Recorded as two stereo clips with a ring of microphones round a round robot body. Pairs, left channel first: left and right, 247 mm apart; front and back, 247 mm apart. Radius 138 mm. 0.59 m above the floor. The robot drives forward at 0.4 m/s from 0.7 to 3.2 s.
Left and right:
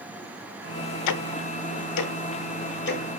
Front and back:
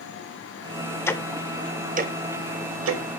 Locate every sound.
1.1 s ticking: 80° left, 0.5 m; by 3.0 s 145° left, 0.9 m